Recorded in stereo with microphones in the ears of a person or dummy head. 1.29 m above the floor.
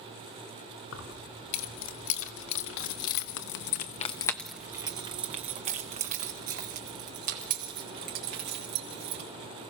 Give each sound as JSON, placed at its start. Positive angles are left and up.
{"t": 0.9, "sound": "keys jangling", "side_deg": 70, "distance_m": 2.5}